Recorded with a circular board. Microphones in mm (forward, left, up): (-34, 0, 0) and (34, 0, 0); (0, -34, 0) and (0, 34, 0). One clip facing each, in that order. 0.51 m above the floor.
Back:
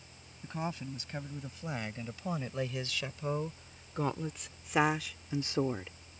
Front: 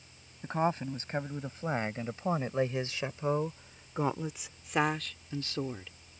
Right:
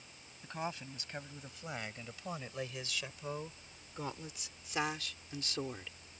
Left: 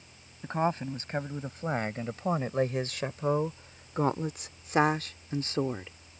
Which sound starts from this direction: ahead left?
A woman speaking, at 0.4 s.